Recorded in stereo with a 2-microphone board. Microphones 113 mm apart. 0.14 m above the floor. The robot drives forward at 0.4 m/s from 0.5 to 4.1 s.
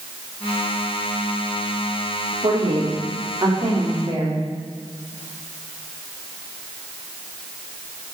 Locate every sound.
2.4 s a woman speaking: 35° right (ahead or behind), 7 m